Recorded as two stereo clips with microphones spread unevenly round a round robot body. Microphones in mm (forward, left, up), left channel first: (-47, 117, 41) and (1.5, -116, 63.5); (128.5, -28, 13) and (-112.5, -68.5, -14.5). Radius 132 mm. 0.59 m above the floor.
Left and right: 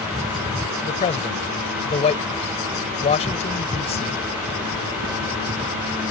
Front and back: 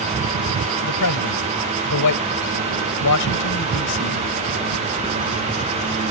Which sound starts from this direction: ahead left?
A man speaking, at 0.8 s.